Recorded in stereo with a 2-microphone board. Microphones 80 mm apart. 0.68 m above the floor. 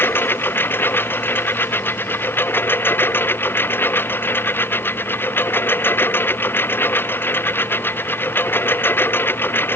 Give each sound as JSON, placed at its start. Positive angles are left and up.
{"t": 0.0, "sound": "a lawn mower", "side_deg": 25}